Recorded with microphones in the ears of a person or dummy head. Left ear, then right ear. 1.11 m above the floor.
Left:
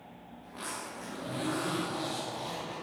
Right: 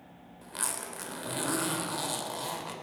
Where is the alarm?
I don't hear an alarm.